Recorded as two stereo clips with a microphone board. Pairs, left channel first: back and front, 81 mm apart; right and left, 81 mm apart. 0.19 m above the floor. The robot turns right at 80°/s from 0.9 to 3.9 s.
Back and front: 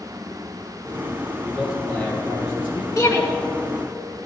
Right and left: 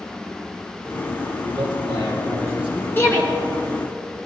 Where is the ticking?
I don't hear ticking.